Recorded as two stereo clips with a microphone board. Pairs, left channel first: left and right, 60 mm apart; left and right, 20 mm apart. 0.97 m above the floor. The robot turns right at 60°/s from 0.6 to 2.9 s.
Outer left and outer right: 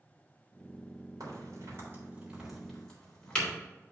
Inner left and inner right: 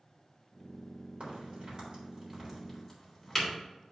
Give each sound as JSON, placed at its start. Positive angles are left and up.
{"t": 1.2, "sound": "a crack", "side_deg": -80, "distance_m": 3.5}